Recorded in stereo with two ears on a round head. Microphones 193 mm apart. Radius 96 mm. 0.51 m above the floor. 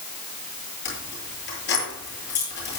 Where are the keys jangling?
60° left (ahead or behind), 9 m.